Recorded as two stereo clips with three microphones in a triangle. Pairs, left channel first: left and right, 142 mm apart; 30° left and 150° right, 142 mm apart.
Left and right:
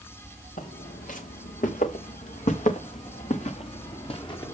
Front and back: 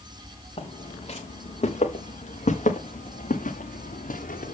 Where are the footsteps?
80° left, 3 m; by 4.5 s 35° left, 1.7 m.